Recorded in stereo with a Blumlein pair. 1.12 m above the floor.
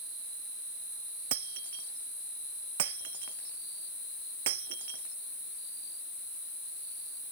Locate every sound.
1.3 s breaking glass: 55° right